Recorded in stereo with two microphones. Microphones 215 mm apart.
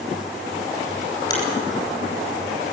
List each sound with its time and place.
1.3 s a finger snap: 20° left (ahead or behind), 9.5 m